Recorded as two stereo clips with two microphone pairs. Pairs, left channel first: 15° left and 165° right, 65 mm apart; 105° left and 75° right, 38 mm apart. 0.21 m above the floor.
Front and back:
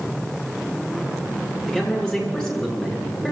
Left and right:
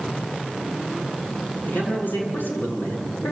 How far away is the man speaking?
About 6.5 m.